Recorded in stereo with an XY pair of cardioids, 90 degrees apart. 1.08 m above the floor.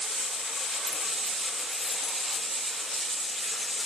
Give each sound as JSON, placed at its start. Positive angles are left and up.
{"t": 0.9, "sound": "keys jangling", "azimuth_deg": 30, "distance_m": 1.0}